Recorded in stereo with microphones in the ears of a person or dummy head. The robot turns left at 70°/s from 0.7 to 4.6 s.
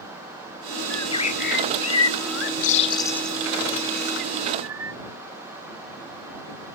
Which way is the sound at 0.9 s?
10° left (ahead or behind).